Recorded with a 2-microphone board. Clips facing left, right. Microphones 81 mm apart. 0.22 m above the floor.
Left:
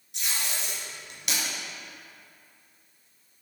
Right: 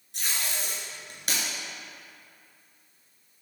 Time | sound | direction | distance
0.1 | tape being pulled | 45° right (ahead or behind) | 2.5 m